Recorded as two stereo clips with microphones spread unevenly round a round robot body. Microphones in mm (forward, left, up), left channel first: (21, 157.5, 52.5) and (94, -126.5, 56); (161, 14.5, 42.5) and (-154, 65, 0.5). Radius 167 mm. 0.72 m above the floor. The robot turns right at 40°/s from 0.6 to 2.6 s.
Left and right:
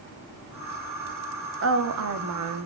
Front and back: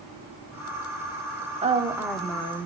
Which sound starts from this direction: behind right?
A woman speaking, at 1.6 s.